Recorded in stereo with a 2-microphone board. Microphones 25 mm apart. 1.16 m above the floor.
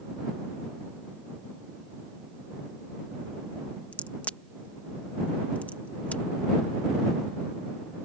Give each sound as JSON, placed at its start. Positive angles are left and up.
{"t": 3.9, "sound": "a crack", "side_deg": 80}